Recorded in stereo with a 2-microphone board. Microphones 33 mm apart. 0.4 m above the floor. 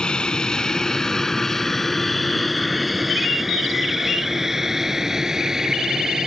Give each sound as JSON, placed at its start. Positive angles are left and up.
{"t": 0.0, "sound": "an aircraft", "side_deg": 30}